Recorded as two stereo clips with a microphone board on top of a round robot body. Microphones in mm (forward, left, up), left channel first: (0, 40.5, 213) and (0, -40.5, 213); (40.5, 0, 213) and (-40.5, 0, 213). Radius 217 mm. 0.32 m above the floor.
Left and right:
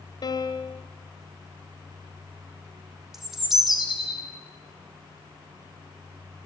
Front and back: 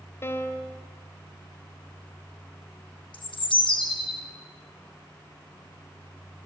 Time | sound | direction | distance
0.2 | a piano | 60° left | 1.8 m
3.1 | a bird | 5° right | 3 m